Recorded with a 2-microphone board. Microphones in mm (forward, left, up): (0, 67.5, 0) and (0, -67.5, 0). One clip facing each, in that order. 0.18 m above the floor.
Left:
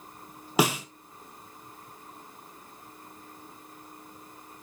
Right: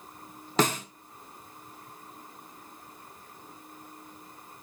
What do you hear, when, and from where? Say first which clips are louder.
0.6 s a snare drum: left 1 dB; 10° left (ahead or behind), 1.3 m